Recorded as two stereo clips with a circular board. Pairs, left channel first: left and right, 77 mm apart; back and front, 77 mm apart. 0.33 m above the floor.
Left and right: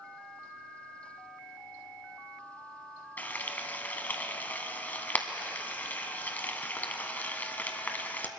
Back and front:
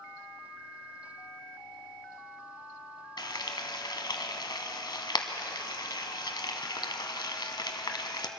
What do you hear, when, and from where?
3.2 s frying: 155° left, 0.9 m